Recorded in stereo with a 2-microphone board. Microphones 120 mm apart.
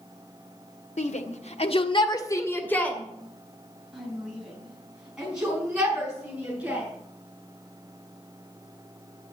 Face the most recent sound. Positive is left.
turn(degrees=-10)  # may be behind; listen again after turning